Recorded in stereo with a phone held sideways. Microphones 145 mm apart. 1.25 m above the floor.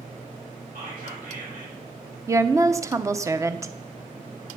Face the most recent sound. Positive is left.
turn(degrees=-20)  # may be behind; listen again after turning